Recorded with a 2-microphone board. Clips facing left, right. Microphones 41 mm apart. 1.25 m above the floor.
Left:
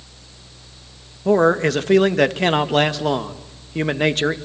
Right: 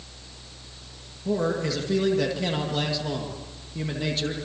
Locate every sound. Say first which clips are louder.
1.2 s a man speaking: left 10 dB; 60° left (ahead or behind), 1.7 m